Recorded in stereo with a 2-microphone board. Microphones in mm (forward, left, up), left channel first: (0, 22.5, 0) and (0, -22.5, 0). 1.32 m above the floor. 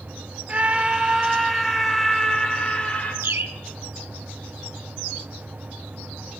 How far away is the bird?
About 1.3 m.